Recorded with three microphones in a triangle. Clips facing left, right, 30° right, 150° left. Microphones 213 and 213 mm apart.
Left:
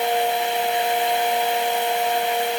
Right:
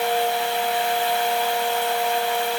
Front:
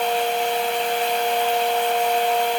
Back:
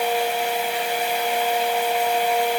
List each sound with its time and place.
Only background noise.